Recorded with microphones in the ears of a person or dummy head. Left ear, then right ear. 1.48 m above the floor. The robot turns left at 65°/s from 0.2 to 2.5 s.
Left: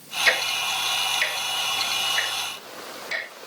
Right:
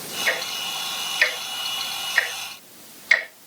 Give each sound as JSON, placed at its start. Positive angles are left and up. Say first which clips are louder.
{"t": 0.3, "sound": "ticking", "louder": "left 4 dB", "side_deg": 30, "distance_m": 2.5}